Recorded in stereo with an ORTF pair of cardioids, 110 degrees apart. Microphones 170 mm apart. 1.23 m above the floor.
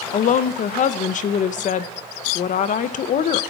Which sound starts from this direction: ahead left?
A woman speaking, at 0.1 s.